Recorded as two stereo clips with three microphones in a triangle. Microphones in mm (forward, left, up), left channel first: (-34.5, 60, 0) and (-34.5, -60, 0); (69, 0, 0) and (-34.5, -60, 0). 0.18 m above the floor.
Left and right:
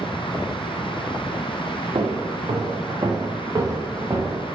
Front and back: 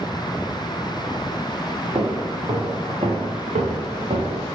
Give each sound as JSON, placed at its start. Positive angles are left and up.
{"t": 1.9, "sound": "footsteps", "azimuth_deg": -110, "distance_m": 1.4}